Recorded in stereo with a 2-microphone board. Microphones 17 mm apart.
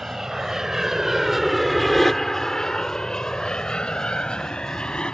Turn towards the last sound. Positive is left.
turn(degrees=65)  # may be behind; listen again after turning